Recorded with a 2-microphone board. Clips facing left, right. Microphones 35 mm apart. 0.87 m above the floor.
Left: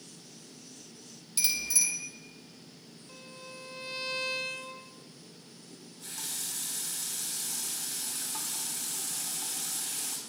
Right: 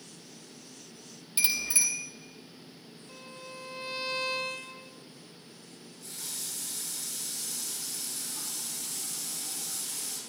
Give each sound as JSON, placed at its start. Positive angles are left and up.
{"t": 1.4, "sound": "a bicycle bell", "side_deg": -30, "distance_m": 3.0}
{"t": 3.1, "sound": "a violin", "side_deg": -5, "distance_m": 0.6}
{"t": 5.7, "sound": "a running tap", "side_deg": 85, "distance_m": 4.5}